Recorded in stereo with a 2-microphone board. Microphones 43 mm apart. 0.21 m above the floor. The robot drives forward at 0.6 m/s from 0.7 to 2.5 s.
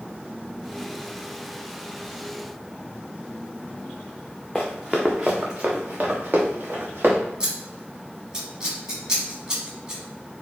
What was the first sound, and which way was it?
Running footsteps, centre (ahead or behind).